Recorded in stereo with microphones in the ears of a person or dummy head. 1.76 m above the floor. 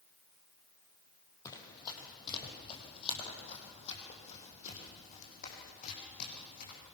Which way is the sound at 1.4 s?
20° left (ahead or behind).